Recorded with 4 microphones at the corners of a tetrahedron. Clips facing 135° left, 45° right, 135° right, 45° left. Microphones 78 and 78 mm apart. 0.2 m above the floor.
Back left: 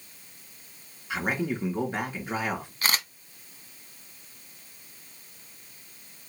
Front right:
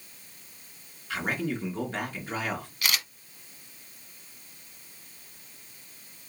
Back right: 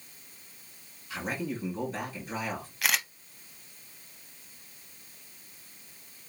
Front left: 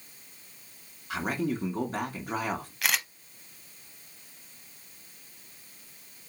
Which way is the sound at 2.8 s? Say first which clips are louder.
Back left 3 dB, back right 1 dB; 135° left.